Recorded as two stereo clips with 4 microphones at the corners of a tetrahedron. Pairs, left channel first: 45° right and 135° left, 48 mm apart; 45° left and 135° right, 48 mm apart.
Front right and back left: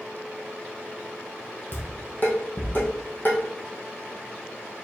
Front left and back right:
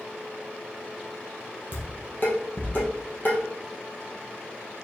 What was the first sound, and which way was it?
Dishes clattering, 5° left.